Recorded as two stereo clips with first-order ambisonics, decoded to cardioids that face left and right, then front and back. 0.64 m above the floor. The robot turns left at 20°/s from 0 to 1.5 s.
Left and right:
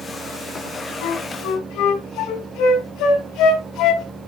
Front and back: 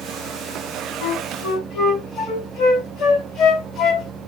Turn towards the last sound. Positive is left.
turn(degrees=60)